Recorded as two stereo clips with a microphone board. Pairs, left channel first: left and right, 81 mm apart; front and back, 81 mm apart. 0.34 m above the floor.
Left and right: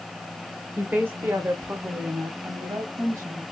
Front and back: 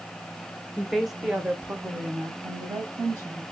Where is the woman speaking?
65° right, 0.8 m; by 3.4 s 145° right, 1.8 m.